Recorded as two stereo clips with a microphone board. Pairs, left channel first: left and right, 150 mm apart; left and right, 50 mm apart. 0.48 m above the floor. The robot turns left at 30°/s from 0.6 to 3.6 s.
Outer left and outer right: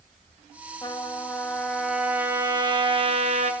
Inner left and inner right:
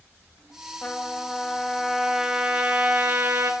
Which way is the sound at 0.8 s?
30° left.